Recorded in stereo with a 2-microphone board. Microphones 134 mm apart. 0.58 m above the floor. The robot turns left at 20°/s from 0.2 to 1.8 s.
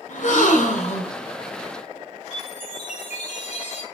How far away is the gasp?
About 2.5 m.